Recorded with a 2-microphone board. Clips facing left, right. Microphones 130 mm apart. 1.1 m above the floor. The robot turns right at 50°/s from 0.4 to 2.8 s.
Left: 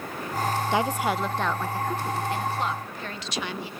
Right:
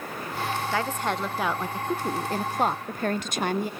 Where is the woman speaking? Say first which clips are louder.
Left 3 dB; 155° left, 0.7 m; by 3.7 s 100° right, 0.7 m.